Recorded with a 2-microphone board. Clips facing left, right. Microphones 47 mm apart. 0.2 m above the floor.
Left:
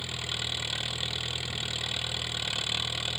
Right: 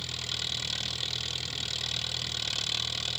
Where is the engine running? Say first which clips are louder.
Left 2 dB; 15° left (ahead or behind).